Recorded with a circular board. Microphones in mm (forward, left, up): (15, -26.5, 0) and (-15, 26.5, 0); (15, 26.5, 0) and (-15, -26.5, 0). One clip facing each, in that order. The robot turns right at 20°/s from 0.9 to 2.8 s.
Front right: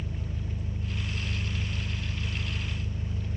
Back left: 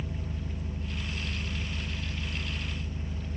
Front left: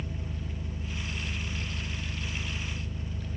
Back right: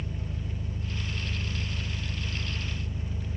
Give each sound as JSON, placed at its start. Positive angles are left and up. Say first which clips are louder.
{"t": 0.0, "sound": "an engine running", "louder": "even, back right 1 dB", "azimuth_deg": 135, "distance_m": 1.0}